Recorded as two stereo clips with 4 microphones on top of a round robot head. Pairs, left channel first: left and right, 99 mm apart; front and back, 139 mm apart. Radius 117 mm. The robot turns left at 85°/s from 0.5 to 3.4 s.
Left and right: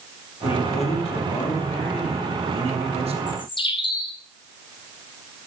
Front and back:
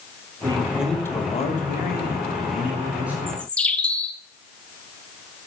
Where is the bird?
90° left, 0.6 m; by 4.2 s 75° left, 0.6 m.